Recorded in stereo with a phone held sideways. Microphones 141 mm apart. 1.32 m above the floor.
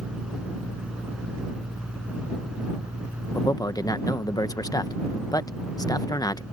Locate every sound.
0.0 s a fan: 5° right (ahead or behind)
3.4 s a man speaking: 25° left (ahead or behind)